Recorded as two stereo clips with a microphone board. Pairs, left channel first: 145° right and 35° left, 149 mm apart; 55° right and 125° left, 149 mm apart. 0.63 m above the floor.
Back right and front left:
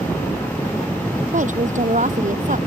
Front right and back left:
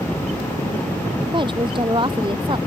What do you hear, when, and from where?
1.3 s a woman speaking: 65° left